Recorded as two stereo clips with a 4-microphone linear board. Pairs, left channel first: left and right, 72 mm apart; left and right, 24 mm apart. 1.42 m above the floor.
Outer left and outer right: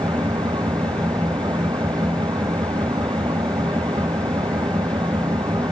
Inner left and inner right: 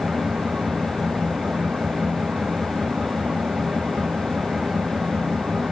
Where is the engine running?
90° right.